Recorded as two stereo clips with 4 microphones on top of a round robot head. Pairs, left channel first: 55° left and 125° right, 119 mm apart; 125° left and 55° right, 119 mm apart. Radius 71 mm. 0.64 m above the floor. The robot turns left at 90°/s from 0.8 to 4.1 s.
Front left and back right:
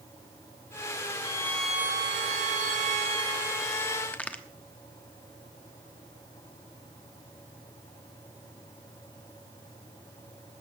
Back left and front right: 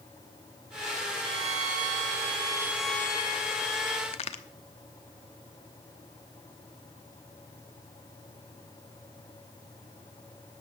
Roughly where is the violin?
Ahead.